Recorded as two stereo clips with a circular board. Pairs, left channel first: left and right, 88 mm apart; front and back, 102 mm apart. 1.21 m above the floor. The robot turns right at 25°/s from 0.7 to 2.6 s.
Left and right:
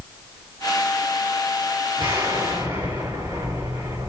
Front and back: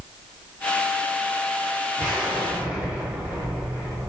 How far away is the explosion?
About 3 m.